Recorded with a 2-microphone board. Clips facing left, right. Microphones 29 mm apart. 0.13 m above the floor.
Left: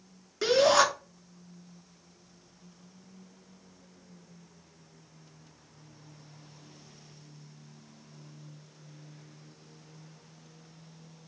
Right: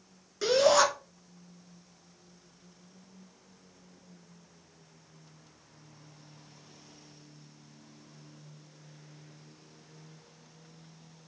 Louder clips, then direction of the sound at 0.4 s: Left 1 dB; 15° left (ahead or behind).